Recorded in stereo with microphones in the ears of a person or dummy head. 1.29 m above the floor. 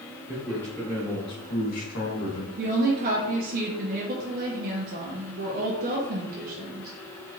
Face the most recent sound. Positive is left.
turn(degrees=-50)  # may be behind; listen again after turning